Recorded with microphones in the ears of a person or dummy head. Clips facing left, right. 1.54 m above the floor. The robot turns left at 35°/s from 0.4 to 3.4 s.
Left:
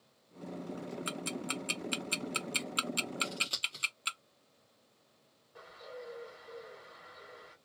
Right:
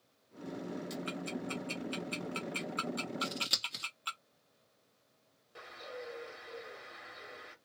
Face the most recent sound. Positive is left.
turn(degrees=-35)  # may be behind; listen again after turning